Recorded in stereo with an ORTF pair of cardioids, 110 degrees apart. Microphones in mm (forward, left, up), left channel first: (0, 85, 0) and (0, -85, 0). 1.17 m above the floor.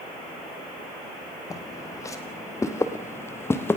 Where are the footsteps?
20° left, 3.5 m; by 3.8 s 15° left, 2 m.